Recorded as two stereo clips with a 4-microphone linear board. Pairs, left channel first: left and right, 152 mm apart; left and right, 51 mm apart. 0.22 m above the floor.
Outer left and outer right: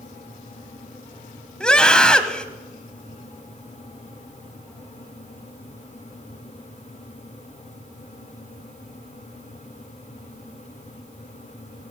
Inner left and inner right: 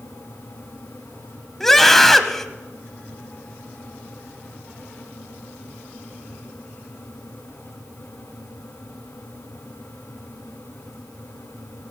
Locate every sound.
1.6 s a scream: 5° left (ahead or behind), 1.0 m